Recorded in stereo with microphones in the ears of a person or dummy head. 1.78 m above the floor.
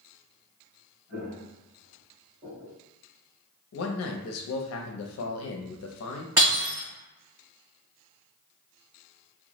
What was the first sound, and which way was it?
Footsteps, 25° right (ahead or behind).